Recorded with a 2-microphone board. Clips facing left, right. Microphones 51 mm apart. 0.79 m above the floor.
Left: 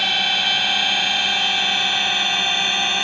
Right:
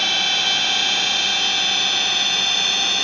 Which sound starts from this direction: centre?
A drone, at 0.0 s.